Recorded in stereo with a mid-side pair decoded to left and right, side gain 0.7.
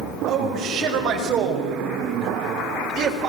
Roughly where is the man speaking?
Ahead right.